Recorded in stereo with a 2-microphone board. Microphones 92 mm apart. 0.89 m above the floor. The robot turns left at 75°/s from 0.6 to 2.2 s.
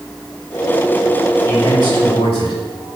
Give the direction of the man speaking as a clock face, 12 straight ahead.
7 o'clock.